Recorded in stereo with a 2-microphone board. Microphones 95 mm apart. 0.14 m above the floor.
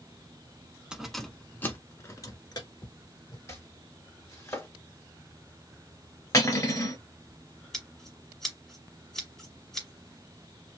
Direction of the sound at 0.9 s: 10° right (ahead or behind).